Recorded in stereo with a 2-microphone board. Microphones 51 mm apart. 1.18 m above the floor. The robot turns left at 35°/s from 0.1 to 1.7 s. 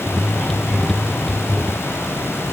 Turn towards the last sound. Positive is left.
No sound to turn to.